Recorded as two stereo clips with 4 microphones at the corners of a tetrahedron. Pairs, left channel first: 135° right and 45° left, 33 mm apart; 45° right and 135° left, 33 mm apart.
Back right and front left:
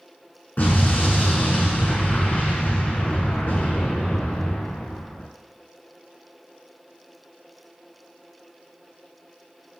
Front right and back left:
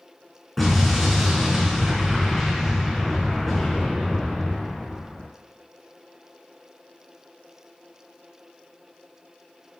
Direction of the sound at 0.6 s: 130° right.